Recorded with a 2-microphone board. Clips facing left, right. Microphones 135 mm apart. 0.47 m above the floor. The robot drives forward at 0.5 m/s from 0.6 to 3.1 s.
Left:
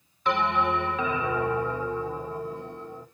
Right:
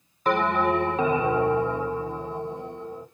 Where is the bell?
40° right (ahead or behind), 0.8 m; by 3.0 s 20° right (ahead or behind), 1.6 m.